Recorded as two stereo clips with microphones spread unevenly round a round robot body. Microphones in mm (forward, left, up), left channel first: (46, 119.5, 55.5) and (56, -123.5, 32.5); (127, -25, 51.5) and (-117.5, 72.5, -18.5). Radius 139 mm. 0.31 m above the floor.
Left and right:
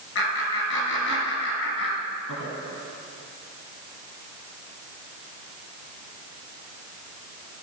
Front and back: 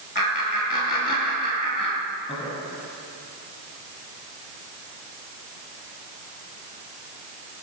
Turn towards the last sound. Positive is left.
turn(degrees=70)